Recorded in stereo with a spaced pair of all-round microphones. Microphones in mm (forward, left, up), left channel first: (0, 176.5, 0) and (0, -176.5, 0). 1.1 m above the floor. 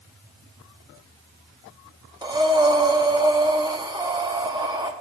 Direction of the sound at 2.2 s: 10° right (ahead or behind).